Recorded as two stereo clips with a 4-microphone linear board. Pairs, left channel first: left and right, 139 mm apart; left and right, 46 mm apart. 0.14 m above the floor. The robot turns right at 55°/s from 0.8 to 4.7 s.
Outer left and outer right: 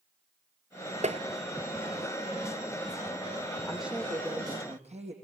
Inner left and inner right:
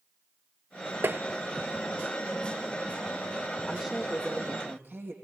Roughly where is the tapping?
Right.